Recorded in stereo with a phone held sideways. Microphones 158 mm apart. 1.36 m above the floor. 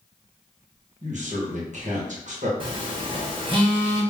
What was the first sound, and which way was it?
A man speaking, 55° right (ahead or behind).